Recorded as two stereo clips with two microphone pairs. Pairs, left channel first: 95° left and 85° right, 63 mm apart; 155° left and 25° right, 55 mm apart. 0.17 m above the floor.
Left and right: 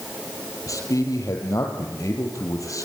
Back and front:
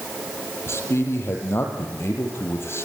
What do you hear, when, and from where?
0.7 s a man speaking: 115° left, 4.5 m